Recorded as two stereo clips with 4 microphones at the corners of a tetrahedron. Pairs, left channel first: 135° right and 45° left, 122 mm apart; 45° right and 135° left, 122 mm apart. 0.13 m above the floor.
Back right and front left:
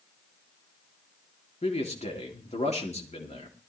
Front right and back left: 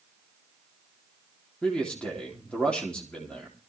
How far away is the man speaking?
About 3.5 m.